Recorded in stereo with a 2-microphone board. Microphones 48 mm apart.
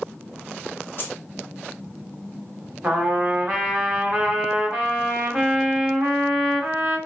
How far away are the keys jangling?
About 0.8 m.